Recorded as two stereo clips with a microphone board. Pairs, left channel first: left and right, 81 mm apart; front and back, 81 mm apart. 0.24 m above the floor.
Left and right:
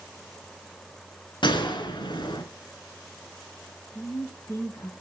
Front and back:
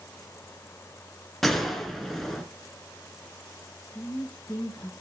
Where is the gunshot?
90° left, 2 m.